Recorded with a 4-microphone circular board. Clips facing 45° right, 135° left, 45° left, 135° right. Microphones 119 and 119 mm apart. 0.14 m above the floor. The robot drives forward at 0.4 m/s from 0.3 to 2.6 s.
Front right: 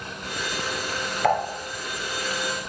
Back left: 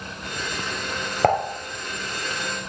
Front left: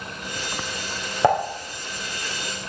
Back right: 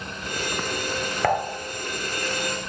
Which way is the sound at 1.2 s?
105° left.